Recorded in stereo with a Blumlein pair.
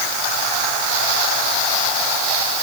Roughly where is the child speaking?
No child speaking in this recording.